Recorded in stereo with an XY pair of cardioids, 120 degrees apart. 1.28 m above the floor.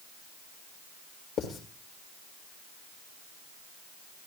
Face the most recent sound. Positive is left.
turn(degrees=65)